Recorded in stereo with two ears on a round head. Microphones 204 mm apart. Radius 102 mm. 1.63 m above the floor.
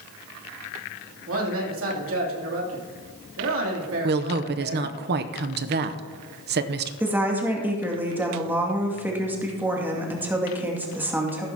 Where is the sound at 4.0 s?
45° right (ahead or behind), 0.7 m.